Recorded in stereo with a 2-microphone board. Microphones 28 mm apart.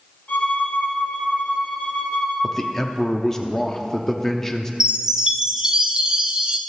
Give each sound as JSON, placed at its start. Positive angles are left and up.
{"t": 0.3, "sound": "a violin", "side_deg": 65, "distance_m": 4.0}
{"t": 2.4, "sound": "a man speaking", "side_deg": 20, "distance_m": 0.6}
{"t": 4.8, "sound": "a chime", "side_deg": -20, "distance_m": 0.7}